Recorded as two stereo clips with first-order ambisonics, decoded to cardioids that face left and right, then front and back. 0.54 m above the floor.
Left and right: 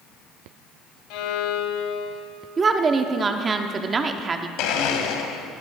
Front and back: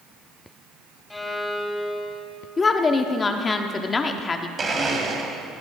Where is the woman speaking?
45° right, 0.7 m.